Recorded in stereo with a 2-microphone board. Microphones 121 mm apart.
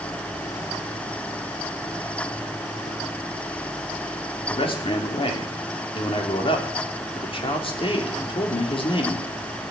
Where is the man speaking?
50° left (ahead or behind), 3.5 m.